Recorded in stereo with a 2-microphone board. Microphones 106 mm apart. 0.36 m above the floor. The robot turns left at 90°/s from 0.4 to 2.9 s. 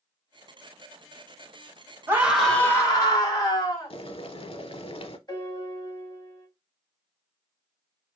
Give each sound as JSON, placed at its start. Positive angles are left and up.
{"t": 2.1, "sound": "a scream", "azimuth_deg": -150, "distance_m": 2.0}
{"t": 3.9, "sound": "boiling", "side_deg": 60, "distance_m": 0.6}
{"t": 5.3, "sound": "a piano", "side_deg": 40, "distance_m": 2.5}